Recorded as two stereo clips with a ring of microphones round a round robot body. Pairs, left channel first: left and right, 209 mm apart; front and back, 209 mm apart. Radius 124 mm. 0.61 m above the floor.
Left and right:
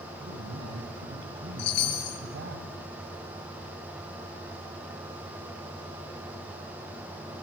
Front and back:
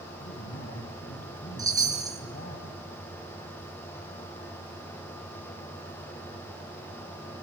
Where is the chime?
105° left, 6 m.